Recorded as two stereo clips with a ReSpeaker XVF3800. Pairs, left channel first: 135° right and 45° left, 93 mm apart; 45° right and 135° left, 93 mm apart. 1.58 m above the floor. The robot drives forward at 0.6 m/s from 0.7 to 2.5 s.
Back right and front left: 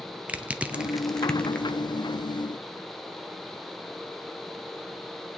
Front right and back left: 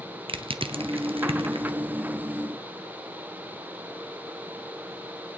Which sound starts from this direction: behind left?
Crushing, at 0.3 s.